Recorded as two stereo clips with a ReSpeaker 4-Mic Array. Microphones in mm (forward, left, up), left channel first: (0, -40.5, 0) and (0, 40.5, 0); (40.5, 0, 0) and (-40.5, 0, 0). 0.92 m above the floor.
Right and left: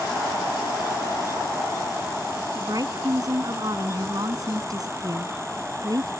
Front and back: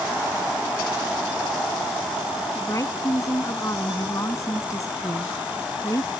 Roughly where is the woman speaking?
Ahead left.